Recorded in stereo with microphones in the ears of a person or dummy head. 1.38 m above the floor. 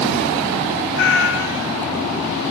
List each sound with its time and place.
0.9 s a cat meowing: 65° left (ahead or behind), 1.3 m